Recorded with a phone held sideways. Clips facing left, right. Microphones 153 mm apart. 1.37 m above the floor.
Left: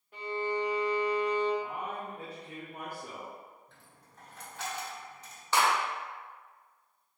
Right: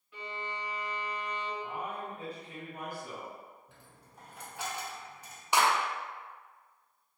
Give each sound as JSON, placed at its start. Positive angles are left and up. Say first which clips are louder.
{"t": 0.1, "sound": "a violin", "louder": "left 9 dB", "side_deg": 45, "distance_m": 1.6}
{"t": 1.6, "sound": "a man speaking", "louder": "left 1 dB", "side_deg": 55, "distance_m": 1.0}
{"t": 3.7, "sound": "a dropped coin", "louder": "right 2 dB", "side_deg": -10, "distance_m": 1.0}
{"t": 5.5, "sound": "a clap", "louder": "even", "side_deg": -15, "distance_m": 1.0}